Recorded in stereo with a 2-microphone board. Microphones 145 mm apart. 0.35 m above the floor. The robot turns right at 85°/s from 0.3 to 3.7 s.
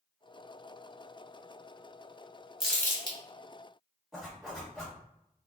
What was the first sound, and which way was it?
Crumpling, 5° right (ahead or behind).